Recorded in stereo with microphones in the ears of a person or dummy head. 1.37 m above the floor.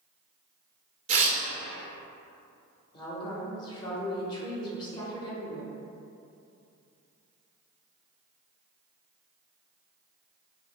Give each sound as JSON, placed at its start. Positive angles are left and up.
{"t": 1.1, "sound": "tearing paper", "side_deg": -40, "distance_m": 0.5}
{"t": 2.9, "sound": "a woman speaking", "side_deg": 25, "distance_m": 1.1}